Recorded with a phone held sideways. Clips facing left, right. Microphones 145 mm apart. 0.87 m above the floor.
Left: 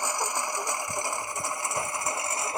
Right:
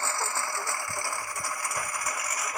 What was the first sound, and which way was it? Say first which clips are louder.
A lawn mower: left 2 dB; 15° left (ahead or behind).